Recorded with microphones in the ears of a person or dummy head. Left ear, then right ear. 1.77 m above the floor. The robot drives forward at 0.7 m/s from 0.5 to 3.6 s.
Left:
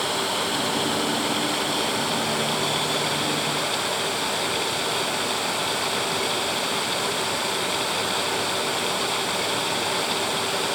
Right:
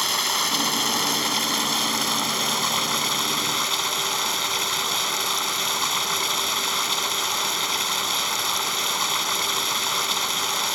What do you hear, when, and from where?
0.0 s running water: 55° right (ahead or behind); by 10.8 s 50° right (ahead or behind)